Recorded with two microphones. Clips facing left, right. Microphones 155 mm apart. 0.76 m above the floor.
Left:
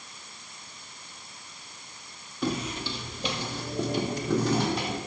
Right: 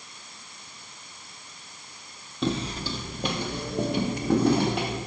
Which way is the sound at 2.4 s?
25° right (ahead or behind).